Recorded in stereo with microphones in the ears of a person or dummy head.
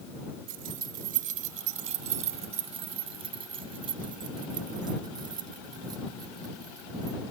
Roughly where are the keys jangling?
Right.